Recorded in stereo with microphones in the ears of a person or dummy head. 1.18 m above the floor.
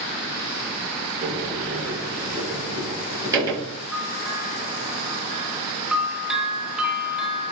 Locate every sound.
1.2 s a sliding door: 20° right (ahead or behind), 5 m
3.9 s a bell: 5° right (ahead or behind), 2.5 m